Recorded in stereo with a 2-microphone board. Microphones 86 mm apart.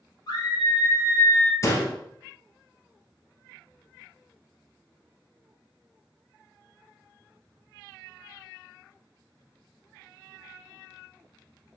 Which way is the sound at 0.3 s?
55° left (ahead or behind).